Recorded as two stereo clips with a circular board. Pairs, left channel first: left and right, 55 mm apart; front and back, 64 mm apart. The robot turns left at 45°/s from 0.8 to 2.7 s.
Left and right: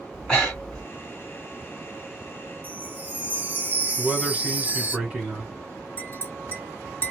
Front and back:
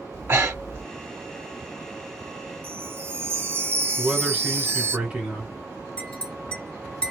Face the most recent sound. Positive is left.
turn(degrees=60)